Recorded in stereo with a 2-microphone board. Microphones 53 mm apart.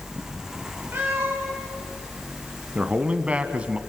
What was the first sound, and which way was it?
A cat meowing, 45° right (ahead or behind).